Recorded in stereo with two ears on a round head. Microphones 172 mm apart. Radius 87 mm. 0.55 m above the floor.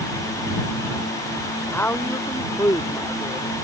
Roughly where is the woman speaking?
Centre.